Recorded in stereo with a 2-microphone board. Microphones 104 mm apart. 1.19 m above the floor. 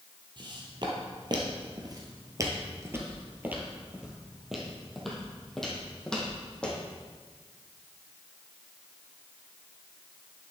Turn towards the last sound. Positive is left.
turn(degrees=10)  # may be behind; listen again after turning